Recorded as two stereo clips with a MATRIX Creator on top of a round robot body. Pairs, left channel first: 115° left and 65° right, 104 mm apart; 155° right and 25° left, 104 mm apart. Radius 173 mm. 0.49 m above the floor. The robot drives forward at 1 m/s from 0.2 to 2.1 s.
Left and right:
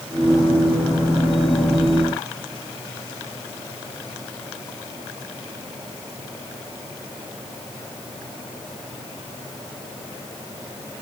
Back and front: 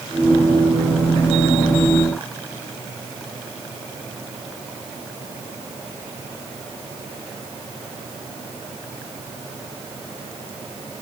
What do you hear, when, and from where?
Only background noise.